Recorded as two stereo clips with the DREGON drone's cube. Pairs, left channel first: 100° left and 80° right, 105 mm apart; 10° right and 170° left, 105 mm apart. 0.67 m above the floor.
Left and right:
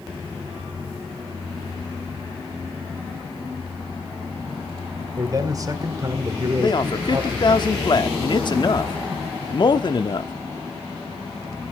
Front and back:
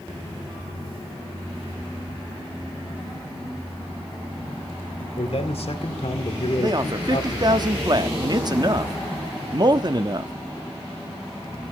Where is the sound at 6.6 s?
130° left, 0.9 m.